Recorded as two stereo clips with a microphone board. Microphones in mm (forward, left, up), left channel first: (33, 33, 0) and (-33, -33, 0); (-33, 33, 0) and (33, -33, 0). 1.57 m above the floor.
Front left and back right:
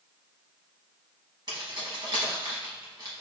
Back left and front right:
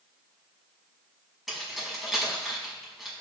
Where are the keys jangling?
135° right, 1.0 m.